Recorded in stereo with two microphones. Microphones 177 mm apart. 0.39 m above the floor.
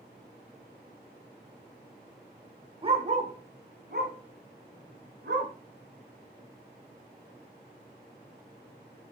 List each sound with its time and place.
2.8 s a dog barking: 30° right (ahead or behind), 0.6 m; by 5.5 s 80° right, 1.7 m